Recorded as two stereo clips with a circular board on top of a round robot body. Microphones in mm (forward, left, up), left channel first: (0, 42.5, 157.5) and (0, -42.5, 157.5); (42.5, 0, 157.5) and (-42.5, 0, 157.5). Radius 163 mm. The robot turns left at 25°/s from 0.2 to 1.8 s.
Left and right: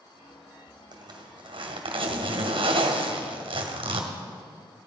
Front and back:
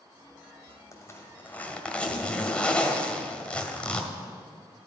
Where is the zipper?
55° right, 2.0 m; by 4.1 s 75° right, 2.0 m.